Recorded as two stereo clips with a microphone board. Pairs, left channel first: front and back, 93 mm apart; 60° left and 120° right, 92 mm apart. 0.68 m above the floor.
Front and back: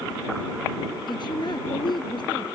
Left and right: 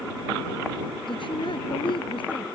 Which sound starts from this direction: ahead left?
A woman speaking, at 1.1 s.